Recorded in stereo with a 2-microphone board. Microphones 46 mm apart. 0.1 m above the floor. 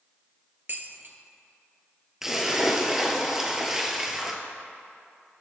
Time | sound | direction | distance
0.7 | dishes clattering | 50° right (ahead or behind) | 1.1 m
2.2 | a splash | 5° right (ahead or behind) | 1.2 m